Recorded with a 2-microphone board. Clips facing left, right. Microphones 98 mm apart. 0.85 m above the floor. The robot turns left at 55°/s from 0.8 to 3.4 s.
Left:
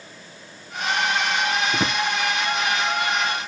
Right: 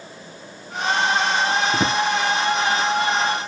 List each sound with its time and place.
1.7 s a drawer: 5° right (ahead or behind); by 2.0 s 20° right (ahead or behind)